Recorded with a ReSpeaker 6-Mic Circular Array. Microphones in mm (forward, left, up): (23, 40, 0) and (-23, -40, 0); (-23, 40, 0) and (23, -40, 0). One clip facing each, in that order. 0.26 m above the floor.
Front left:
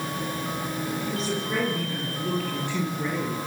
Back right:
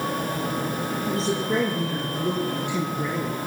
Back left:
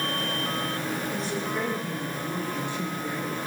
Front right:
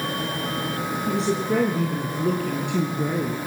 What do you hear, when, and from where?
1.1 s a woman speaking: 65° right, 5.5 m; by 3.4 s 35° right, 4 m